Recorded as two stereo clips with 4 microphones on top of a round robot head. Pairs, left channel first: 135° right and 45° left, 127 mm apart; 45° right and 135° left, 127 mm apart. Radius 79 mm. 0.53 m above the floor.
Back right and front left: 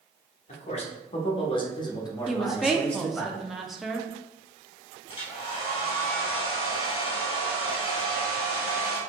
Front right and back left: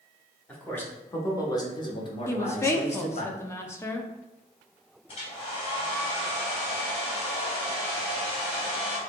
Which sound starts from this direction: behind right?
A man speaking, at 0.5 s.